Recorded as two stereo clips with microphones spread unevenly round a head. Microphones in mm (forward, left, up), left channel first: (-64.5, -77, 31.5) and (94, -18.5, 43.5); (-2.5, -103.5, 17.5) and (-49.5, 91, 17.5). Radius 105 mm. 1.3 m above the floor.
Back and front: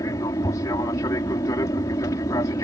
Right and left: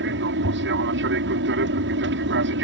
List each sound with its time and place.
0.0 s an aircraft: 125° left